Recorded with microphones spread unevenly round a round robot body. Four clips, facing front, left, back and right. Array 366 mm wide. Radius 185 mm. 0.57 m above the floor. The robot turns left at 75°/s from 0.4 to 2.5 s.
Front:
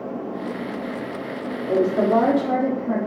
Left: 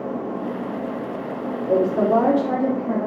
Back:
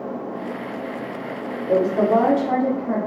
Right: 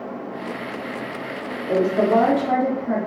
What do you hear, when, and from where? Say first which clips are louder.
1.7 s a woman speaking: even, back 1 dB; 80° left, 1.1 m; by 3.0 s 20° left, 1.1 m